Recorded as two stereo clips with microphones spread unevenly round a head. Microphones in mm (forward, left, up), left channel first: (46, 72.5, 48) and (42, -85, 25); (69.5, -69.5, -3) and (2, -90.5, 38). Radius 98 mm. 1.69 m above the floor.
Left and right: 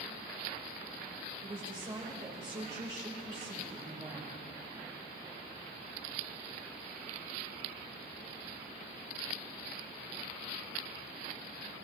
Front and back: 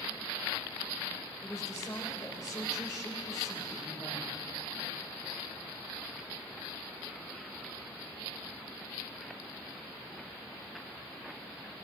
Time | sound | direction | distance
1.4 | a woman speaking | 35° right | 3 m